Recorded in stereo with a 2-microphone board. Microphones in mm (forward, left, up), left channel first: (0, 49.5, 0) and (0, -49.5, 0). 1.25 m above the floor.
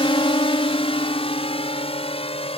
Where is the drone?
70° left (ahead or behind); by 2.6 s 85° left.